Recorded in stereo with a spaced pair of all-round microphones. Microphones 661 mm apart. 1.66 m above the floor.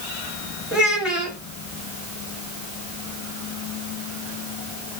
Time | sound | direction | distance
0.7 | a child speaking | centre (ahead or behind) | 1.1 m